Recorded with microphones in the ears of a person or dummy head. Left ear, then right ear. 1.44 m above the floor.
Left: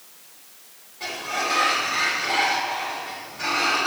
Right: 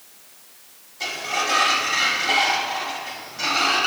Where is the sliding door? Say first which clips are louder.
Right 2 dB; 75° right (ahead or behind), 1.7 m.